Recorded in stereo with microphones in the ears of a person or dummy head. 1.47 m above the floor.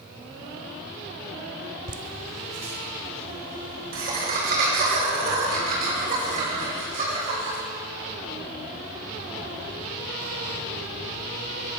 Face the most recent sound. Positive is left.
turn(degrees=-50)  # may be behind; listen again after turning